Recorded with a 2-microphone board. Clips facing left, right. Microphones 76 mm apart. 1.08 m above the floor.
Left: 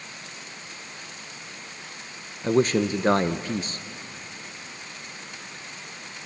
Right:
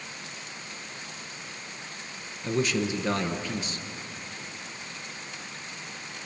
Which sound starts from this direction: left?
A man speaking, at 2.4 s.